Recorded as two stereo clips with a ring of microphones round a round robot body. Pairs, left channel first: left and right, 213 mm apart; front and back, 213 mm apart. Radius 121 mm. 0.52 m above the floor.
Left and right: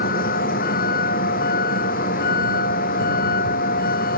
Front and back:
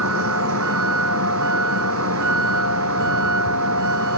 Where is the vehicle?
145° left.